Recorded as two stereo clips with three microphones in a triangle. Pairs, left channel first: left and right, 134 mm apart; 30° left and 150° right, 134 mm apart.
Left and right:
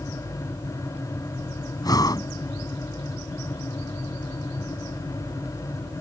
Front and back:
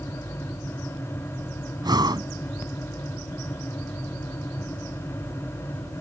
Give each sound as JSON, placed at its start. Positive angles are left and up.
{"t": 1.8, "sound": "breathing", "azimuth_deg": 150}